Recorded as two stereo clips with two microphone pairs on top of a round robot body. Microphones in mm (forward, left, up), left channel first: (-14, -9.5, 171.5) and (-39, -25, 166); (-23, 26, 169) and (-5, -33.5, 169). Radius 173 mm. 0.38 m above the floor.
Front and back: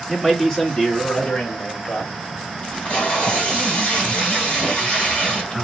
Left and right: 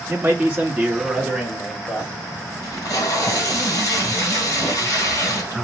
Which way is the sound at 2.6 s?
70° left.